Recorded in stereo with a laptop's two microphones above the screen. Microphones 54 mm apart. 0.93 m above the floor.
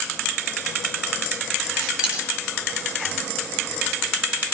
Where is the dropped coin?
20° right (ahead or behind), 2 m.